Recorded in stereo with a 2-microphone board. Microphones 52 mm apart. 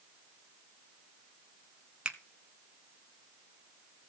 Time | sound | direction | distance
2.0 | a finger snap | 20° right (ahead or behind) | 0.9 m